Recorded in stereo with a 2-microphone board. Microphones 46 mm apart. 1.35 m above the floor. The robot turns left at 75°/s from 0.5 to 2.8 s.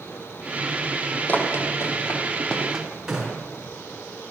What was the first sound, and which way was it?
Running footsteps, 35° left (ahead or behind).